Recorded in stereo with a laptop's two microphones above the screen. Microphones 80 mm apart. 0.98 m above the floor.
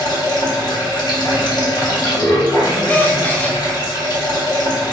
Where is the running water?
60° left (ahead or behind), 0.9 m.